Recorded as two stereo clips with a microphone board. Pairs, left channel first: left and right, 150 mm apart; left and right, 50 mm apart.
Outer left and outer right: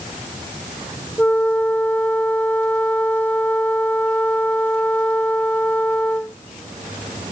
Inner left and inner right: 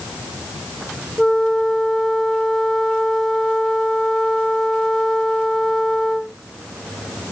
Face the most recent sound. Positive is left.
turn(degrees=10)  # may be behind; listen again after turning